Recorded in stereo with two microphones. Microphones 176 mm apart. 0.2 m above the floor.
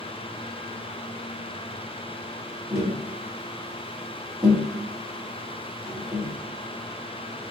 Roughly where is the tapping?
Centre.